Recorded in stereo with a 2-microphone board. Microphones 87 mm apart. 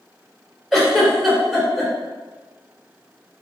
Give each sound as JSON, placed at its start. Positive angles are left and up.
{"t": 0.7, "sound": "a giggle", "side_deg": 0, "distance_m": 1.9}